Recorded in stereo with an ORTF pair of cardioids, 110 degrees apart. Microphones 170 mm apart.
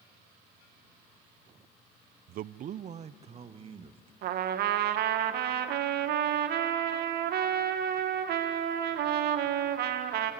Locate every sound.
2.3 s a man speaking: 65° right, 0.5 m; by 4.1 s 30° right, 1.9 m
4.2 s a trumpet: 70° right, 1.7 m